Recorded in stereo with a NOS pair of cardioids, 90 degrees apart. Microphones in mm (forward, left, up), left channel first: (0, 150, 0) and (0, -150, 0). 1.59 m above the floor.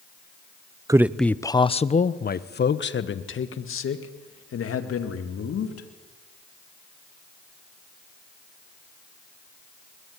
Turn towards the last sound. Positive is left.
turn(degrees=55)